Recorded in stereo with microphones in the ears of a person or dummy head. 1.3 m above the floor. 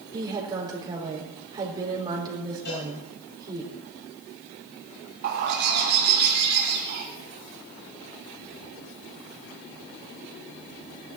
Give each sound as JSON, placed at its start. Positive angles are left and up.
{"t": 0.1, "sound": "a woman speaking", "side_deg": -25, "distance_m": 4.0}
{"t": 2.6, "sound": "a cowbell", "side_deg": 60, "distance_m": 7.0}
{"t": 5.2, "sound": "a bird", "side_deg": -55, "distance_m": 2.5}